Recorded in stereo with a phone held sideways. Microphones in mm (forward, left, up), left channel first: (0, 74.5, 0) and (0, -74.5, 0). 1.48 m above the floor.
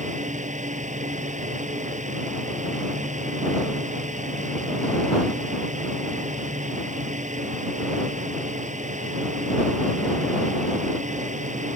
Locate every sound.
0.0 s a fan: 55° right (ahead or behind)